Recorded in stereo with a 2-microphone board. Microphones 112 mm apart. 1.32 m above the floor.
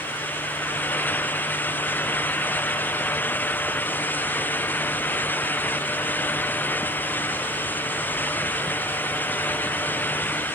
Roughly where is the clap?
I don't hear a clap.